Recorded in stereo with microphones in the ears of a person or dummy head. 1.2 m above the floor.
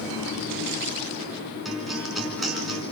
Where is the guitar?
Centre (ahead or behind), 4 m.